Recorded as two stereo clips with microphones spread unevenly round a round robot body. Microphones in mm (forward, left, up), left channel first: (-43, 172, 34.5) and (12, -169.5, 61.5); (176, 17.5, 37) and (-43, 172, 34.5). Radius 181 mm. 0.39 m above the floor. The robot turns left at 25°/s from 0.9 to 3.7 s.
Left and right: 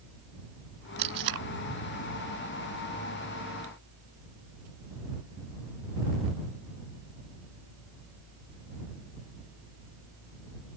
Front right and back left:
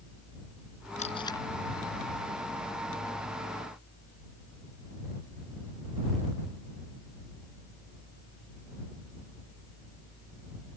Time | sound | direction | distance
1.0 | tape being pulled | 105° right | ?